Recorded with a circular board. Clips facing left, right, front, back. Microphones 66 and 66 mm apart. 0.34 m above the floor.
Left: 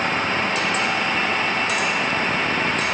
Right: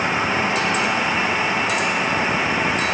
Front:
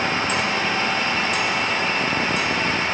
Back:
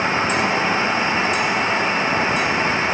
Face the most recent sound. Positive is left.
No sound to turn to.